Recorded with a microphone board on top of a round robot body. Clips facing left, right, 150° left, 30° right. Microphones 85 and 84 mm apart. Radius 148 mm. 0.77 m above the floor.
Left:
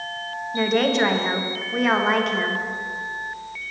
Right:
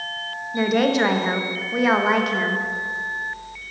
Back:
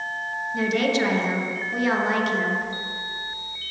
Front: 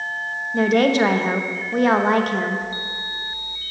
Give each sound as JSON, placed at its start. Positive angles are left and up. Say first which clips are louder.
{"t": 0.5, "sound": "a woman speaking", "louder": "right 1 dB, front 6 dB", "azimuth_deg": -5, "distance_m": 1.0}